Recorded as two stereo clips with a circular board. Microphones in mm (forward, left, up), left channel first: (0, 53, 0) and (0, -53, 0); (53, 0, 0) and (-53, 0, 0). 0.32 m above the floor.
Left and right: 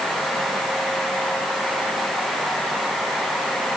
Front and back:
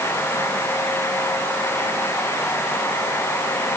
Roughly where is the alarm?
I don't hear an alarm.